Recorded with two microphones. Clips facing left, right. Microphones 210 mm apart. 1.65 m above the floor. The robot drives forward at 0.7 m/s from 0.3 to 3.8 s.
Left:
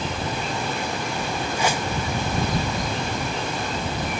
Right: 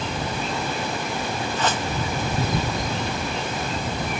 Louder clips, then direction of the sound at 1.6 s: Left 1 dB; 10° left (ahead or behind).